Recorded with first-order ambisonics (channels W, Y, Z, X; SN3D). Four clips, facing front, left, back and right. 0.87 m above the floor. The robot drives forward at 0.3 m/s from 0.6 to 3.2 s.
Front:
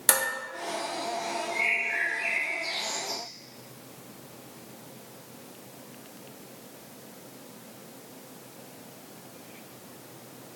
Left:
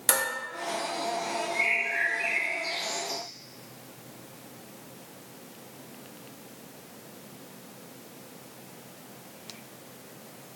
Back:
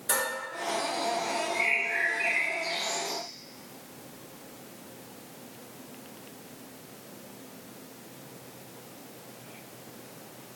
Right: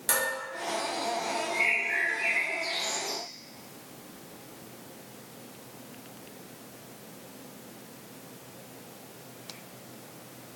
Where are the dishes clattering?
25° left, 0.7 m.